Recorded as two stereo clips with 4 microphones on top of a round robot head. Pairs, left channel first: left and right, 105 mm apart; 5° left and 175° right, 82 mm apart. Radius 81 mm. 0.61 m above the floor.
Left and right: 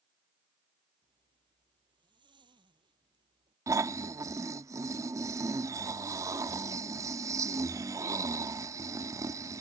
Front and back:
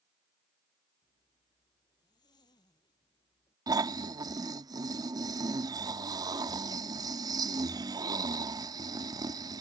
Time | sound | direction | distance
1.0 | a zipper | 45° right | ?
3.7 | snoring | 145° right | ?